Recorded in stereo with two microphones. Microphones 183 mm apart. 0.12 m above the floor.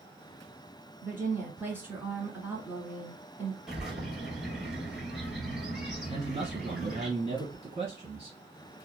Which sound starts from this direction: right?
A man speaking, at 6.1 s.